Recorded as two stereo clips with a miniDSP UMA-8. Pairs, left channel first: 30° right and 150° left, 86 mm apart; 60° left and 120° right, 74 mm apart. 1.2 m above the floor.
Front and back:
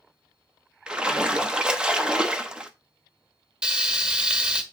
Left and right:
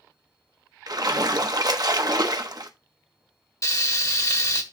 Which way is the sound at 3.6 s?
75° left.